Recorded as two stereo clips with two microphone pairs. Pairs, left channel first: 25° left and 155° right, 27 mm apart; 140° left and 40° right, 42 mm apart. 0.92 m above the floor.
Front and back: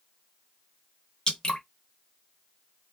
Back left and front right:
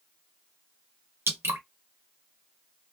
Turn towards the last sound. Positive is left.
turn(degrees=-35)